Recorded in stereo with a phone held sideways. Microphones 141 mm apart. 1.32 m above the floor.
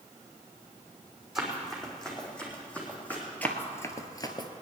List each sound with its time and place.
1.4 s running footsteps: centre (ahead or behind), 4 m; by 3.2 s 15° left (ahead or behind), 4 m
3.4 s running footsteps: 10° left (ahead or behind), 1.5 m; by 4.5 s 30° left (ahead or behind), 1.4 m